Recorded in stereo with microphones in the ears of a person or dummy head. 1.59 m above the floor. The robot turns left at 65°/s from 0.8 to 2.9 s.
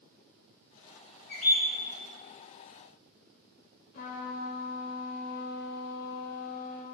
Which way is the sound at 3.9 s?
45° left (ahead or behind).